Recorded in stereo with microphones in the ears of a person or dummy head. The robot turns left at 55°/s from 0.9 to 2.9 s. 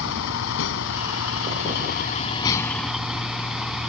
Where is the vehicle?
110° left; by 3.9 s straight ahead.